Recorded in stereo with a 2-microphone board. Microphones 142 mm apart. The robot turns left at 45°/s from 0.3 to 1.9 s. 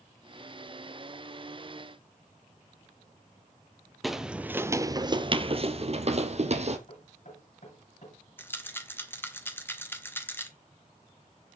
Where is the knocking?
55° left (ahead or behind), 9.5 m.